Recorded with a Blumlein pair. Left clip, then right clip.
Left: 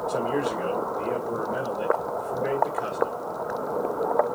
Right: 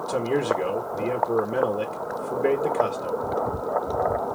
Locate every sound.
0.1 s a man speaking: 25° right, 1.8 m